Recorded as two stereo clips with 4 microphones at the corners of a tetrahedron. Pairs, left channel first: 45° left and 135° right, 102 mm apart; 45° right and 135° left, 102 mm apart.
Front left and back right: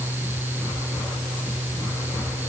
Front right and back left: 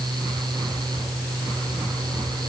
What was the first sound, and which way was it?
Only background noise.